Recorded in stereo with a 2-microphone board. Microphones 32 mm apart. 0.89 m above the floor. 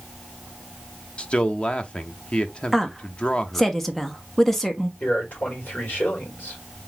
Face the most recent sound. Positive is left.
turn(degrees=65)  # may be behind; listen again after turning